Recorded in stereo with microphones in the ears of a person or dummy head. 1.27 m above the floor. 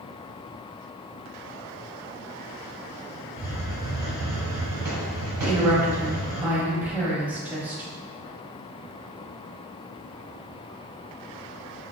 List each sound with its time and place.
3.4 s a hiss: 15° right (ahead or behind), 1.4 m
5.4 s a woman speaking: 10° right (ahead or behind), 1.0 m